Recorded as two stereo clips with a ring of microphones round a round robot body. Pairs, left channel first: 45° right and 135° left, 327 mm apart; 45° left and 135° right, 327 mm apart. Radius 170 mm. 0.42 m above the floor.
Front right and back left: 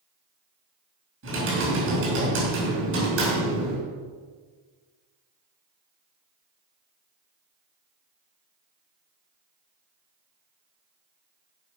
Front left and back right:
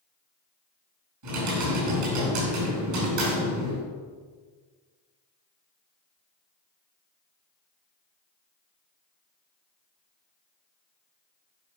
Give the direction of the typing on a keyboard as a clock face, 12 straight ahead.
6 o'clock.